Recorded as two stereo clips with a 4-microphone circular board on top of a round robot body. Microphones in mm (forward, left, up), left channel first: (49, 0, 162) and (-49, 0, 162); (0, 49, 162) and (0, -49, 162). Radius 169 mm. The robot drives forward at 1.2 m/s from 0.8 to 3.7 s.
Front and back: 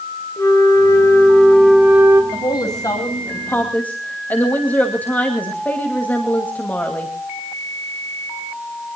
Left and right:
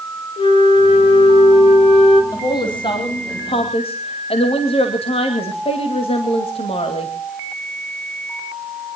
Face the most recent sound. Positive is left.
turn(degrees=75)